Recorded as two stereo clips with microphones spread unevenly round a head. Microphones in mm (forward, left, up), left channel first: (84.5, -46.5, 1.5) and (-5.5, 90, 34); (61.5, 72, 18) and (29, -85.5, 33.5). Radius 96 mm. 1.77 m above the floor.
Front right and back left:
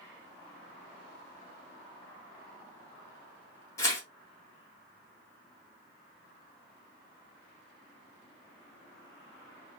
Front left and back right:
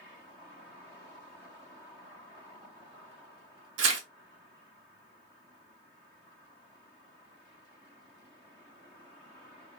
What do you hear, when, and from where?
3.8 s tearing paper: 135° right, 0.9 m